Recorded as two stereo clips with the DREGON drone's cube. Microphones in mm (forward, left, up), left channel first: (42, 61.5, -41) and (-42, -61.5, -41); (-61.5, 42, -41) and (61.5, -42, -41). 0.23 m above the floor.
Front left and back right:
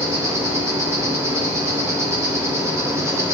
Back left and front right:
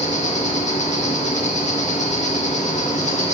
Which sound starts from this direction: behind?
An insect, at 0.0 s.